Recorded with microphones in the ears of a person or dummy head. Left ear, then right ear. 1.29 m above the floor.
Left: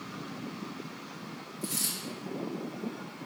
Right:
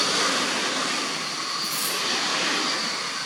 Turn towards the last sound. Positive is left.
turn(degrees=30)  # may be behind; listen again after turning